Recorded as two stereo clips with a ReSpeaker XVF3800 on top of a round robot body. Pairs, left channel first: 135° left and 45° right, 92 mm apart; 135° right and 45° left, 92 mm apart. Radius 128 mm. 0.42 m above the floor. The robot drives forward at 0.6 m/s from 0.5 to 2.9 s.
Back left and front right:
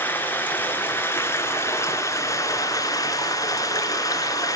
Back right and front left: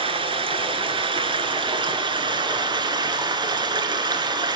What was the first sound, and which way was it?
Running water, 65° left.